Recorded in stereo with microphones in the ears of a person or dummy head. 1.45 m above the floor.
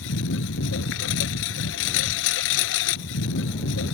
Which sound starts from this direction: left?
A lawn mower, at 0.0 s.